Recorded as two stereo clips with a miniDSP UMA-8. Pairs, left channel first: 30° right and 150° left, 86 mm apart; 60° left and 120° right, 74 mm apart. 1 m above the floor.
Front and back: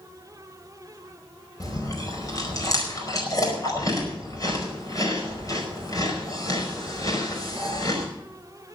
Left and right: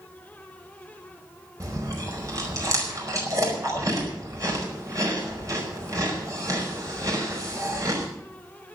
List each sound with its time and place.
1.6 s chewing: 80° right, 5 m